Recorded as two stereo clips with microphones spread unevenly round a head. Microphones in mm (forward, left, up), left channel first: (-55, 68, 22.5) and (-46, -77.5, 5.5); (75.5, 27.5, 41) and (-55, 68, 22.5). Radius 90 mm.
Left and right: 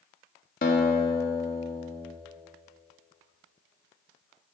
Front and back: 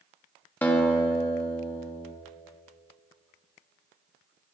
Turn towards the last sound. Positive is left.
turn(degrees=55)